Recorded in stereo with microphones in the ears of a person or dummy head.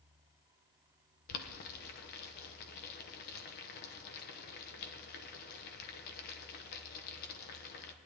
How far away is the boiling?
About 1.2 m.